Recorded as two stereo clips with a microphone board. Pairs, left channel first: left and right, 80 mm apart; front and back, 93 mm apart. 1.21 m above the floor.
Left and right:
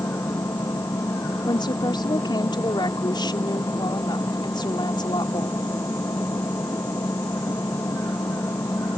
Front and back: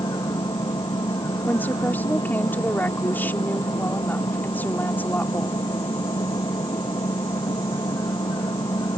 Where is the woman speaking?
70° left.